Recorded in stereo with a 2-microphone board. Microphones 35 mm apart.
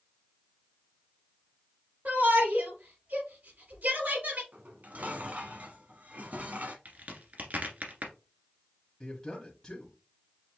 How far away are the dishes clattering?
About 1.4 m.